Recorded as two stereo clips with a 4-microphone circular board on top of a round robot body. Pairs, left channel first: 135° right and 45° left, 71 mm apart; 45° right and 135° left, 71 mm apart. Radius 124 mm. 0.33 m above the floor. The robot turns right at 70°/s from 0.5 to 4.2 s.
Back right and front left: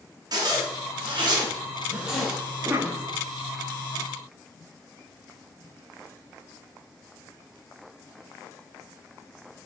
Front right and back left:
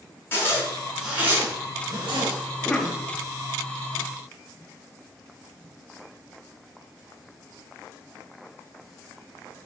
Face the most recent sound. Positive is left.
turn(degrees=130)